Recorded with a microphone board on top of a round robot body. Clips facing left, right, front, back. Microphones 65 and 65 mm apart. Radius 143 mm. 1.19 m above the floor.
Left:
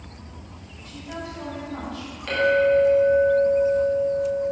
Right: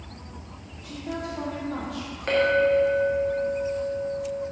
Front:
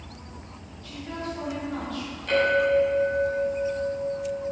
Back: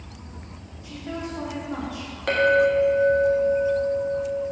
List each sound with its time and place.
0.8 s a woman speaking: 105° right, 2.5 m
2.3 s a clink: 150° right, 1.5 m